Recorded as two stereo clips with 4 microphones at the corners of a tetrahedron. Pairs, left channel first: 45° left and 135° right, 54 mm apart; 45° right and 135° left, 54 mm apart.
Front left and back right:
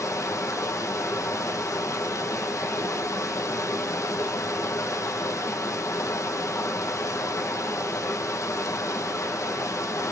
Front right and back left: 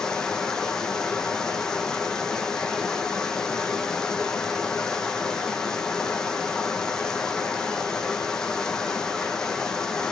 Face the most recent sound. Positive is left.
turn(degrees=35)